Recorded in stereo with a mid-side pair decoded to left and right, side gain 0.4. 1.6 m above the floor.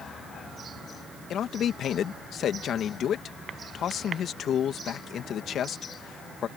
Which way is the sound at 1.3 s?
65° left.